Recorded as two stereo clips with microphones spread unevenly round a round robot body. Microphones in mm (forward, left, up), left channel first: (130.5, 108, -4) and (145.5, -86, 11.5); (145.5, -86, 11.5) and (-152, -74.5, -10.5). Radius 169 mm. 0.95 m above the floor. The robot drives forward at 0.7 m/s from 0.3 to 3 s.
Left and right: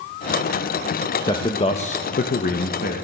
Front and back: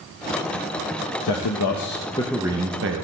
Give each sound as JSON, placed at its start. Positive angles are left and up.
{"t": 1.2, "sound": "a man speaking", "azimuth_deg": 25, "distance_m": 0.9}